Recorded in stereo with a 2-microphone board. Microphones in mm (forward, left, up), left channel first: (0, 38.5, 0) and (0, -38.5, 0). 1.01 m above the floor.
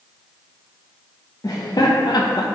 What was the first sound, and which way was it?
Laughter, 50° left (ahead or behind).